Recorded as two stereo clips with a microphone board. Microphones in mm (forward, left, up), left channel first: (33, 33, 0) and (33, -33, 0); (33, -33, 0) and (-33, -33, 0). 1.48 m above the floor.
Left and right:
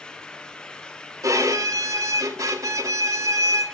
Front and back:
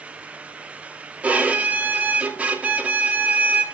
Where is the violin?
110° right, 1.6 m.